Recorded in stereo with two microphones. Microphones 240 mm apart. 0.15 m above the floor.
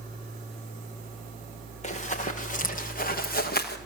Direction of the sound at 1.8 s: 30° left (ahead or behind).